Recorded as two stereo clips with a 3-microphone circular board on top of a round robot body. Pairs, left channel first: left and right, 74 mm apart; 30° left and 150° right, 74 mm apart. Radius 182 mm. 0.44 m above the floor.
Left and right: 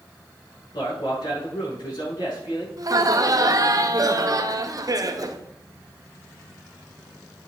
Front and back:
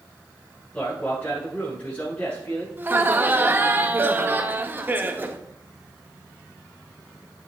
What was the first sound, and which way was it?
A man speaking, 105° left.